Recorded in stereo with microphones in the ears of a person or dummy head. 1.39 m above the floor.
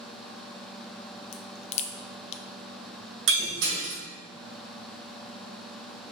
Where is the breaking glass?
65° right (ahead or behind), 2.5 m.